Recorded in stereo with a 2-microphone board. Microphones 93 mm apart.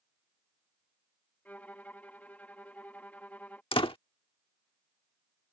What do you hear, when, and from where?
1.4 s a violin: 15° left (ahead or behind)
3.7 s a door slam: 75° left (ahead or behind)